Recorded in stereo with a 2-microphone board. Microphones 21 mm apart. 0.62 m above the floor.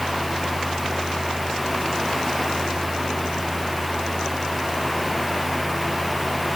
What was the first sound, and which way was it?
Only background noise.